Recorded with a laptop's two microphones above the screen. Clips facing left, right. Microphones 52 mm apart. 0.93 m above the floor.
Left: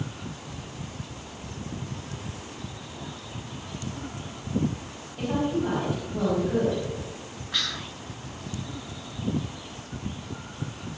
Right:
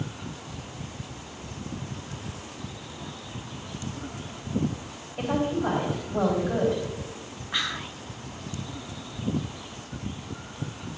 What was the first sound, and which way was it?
A woman speaking, 35° right (ahead or behind).